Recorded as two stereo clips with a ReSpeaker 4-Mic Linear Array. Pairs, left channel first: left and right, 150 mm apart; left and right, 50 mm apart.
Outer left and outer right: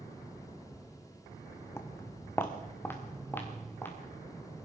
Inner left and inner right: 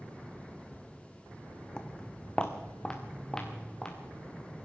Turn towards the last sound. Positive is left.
turn(degrees=15)  # may be behind; listen again after turning